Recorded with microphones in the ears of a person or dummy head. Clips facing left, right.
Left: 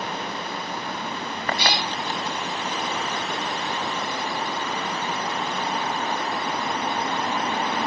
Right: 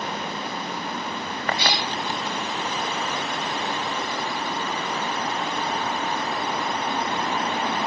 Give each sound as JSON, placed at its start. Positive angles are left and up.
{"t": 1.6, "sound": "a cat meowing", "side_deg": 45, "distance_m": 0.8}